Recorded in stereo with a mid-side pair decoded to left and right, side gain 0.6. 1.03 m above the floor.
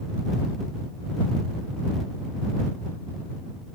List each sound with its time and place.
Only background noise.